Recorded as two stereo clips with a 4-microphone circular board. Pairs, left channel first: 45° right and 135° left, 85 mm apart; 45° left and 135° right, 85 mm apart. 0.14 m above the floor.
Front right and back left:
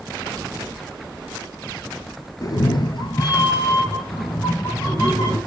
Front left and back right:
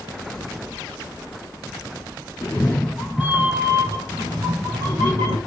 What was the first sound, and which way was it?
A cat meowing, 10° right.